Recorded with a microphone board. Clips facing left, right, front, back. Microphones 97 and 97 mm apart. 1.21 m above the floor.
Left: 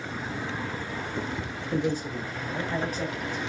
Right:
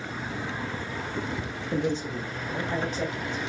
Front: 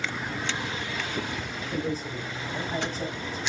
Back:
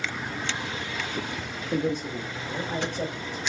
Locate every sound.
1.7 s a man speaking: 160° right, 1.0 m; by 3.4 s 155° right, 1.9 m